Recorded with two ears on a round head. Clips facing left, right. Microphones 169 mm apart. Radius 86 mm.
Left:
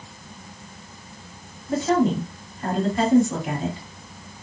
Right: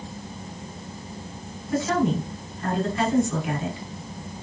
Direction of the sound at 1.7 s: 35° left (ahead or behind).